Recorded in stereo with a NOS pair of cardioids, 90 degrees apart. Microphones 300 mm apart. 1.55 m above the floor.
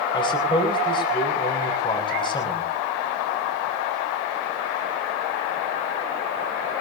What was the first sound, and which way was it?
A man speaking, 15° left.